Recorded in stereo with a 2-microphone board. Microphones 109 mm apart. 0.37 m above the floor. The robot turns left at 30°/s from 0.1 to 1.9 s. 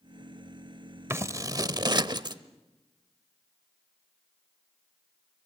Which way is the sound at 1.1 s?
25° right (ahead or behind).